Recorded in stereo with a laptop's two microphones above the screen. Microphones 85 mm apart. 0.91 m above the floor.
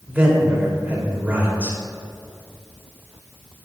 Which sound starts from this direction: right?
A man speaking, at 0.1 s.